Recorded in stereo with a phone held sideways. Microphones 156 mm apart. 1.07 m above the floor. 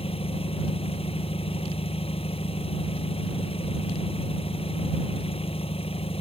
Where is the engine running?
40° left (ahead or behind).